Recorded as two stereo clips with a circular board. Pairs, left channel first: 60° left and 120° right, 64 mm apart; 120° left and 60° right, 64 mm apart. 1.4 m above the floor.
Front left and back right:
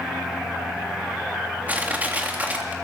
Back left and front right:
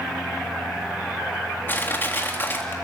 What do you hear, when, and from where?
1.7 s crushing: 175° left, 3.5 m